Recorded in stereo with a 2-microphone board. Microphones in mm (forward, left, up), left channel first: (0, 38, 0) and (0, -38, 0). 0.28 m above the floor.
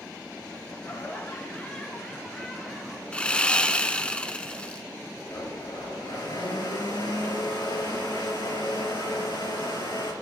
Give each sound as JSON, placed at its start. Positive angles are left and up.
{"t": 0.8, "sound": "laughter", "side_deg": 40, "distance_m": 1.4}
{"t": 3.1, "sound": "sawing", "side_deg": 15, "distance_m": 0.7}
{"t": 5.3, "sound": "a blender", "side_deg": 80, "distance_m": 3.5}